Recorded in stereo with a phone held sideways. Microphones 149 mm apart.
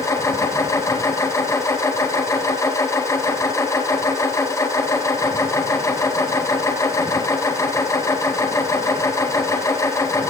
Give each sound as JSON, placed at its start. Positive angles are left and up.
{"t": 0.0, "sound": "a machine running", "side_deg": 20, "distance_m": 1.9}